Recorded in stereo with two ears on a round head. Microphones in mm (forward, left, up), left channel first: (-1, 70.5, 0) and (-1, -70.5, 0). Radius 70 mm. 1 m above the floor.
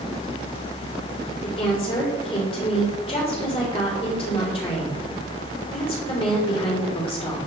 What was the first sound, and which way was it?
A woman speaking, 35° left (ahead or behind).